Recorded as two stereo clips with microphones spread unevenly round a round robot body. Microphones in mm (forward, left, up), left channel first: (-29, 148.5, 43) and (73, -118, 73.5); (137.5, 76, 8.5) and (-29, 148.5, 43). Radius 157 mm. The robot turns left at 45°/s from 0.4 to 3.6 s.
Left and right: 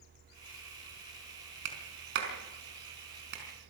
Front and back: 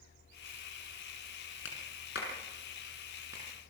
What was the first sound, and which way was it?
A clap, 50° right.